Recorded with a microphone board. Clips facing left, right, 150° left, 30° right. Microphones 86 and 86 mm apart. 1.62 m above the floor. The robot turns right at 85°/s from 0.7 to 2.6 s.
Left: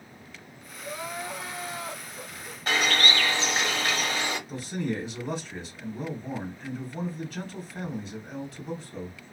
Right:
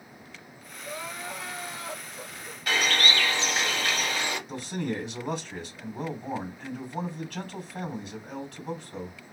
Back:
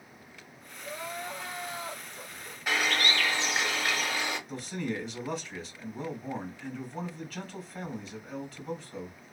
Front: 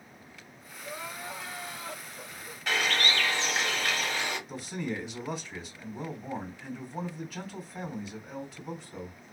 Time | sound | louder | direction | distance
0.8 | crying | left 2 dB, back 2 dB | 10° left | 1.2 m
2.7 | a bird | left 1 dB, even | 80° left | 1.4 m
4.5 | a man speaking | left 1 dB, back 1 dB | 115° right | 1.5 m